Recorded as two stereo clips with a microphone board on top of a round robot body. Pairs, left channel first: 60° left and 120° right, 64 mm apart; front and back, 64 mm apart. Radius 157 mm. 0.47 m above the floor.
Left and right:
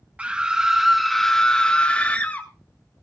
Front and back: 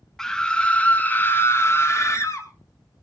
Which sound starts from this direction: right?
A scream, at 0.2 s.